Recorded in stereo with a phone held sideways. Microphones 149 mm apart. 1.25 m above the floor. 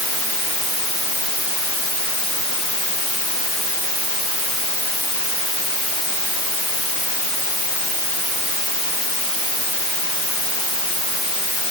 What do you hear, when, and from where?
Only background noise.